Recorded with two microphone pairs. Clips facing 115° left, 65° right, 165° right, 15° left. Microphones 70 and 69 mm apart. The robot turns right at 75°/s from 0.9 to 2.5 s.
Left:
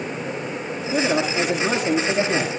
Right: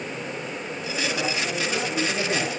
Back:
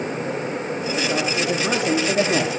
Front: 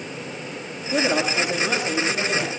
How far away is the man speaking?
About 7 m.